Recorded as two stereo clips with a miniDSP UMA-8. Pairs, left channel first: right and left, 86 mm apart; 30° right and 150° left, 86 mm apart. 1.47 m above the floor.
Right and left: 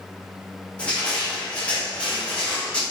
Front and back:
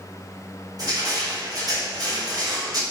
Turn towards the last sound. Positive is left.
turn(degrees=-165)